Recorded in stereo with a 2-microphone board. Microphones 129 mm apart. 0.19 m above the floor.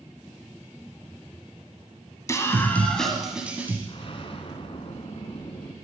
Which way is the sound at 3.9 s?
45° left (ahead or behind).